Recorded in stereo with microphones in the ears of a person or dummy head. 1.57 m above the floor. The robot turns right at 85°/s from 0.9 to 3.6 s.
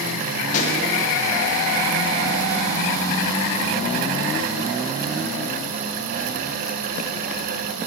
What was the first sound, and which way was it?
A pop, 40° left (ahead or behind).